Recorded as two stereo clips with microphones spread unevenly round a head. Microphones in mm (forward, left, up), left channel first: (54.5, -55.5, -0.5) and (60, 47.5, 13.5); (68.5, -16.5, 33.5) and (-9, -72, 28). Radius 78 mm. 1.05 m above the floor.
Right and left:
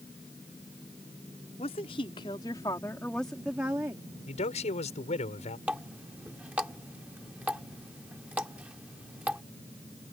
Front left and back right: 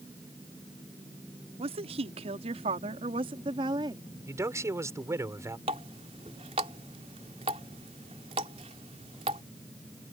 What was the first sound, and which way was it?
A woman speaking, 135° right.